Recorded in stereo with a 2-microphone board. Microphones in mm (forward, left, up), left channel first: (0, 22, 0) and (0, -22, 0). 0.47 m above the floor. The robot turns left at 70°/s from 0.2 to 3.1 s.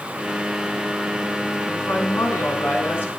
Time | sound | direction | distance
1.7 | a woman speaking | 140° left | 5.5 m